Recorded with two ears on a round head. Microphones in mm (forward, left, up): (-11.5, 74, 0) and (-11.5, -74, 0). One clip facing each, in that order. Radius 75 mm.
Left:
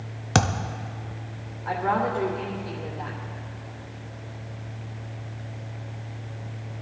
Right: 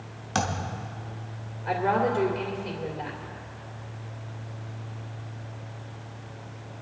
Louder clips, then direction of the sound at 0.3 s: Left 4 dB; 65° left (ahead or behind).